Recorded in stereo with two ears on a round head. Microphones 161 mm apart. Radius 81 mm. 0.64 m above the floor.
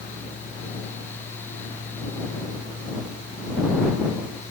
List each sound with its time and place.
Only background noise.